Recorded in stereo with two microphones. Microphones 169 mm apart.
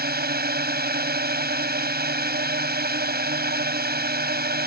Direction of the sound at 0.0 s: 70° right (ahead or behind).